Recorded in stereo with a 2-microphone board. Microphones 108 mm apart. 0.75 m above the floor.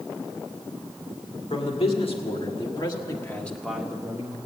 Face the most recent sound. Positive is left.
turn(degrees=-35)  # may be behind; listen again after turning